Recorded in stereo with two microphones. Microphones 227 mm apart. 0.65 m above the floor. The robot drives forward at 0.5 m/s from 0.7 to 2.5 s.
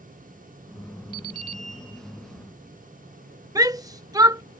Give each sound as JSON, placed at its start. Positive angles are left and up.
{"t": 1.1, "sound": "an alarm clock", "side_deg": -80}
{"t": 3.5, "sound": "a shout", "side_deg": -15}